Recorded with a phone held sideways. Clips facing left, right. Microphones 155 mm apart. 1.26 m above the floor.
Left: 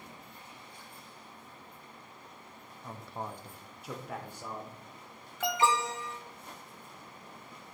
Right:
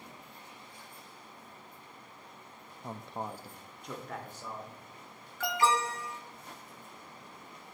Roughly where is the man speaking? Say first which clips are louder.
Right 2 dB; right.